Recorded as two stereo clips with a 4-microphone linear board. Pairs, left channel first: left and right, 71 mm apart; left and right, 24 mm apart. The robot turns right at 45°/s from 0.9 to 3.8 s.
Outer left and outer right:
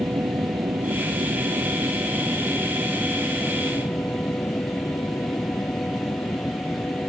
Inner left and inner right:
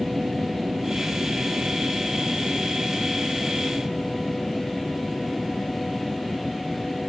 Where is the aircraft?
65° right (ahead or behind); by 7.1 s 35° left (ahead or behind).